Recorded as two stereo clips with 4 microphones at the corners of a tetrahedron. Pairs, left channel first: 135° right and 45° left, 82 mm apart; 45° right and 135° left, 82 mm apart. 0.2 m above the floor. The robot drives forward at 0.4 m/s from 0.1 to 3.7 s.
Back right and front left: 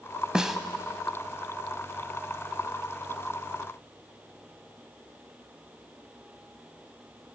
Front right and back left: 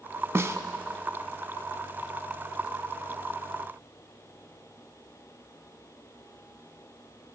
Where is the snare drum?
120° left, 0.6 m; by 0.6 s 130° left, 0.6 m.